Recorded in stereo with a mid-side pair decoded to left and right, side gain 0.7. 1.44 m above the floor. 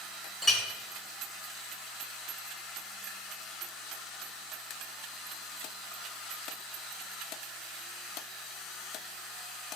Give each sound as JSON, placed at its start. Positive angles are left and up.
{"t": 0.4, "sound": "a clink", "azimuth_deg": 5, "distance_m": 0.9}